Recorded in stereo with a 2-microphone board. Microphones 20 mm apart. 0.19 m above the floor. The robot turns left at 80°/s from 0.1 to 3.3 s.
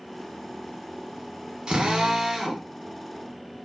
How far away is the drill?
About 0.7 m.